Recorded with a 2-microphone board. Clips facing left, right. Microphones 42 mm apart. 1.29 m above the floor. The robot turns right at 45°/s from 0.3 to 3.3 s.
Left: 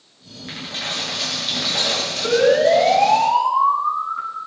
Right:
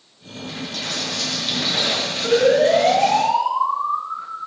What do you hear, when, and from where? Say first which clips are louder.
0.5 s a dropped coin: left 1 dB; 135° left, 6.5 m; by 3.2 s 100° right, 6.5 m
2.2 s a siren: even; 10° left (ahead or behind), 9 m; by 4.4 s 50° left (ahead or behind), 9 m